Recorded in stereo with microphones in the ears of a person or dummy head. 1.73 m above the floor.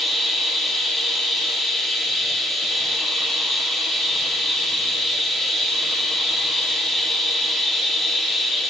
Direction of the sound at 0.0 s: Centre (ahead or behind).